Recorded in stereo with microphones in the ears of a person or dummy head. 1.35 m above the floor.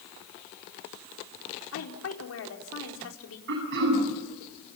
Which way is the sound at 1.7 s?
80° left.